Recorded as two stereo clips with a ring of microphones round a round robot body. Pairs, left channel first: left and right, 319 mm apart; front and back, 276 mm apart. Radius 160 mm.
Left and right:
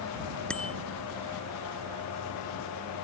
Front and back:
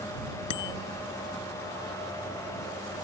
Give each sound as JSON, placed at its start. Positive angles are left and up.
{"t": 0.5, "sound": "a bicycle bell", "azimuth_deg": 5}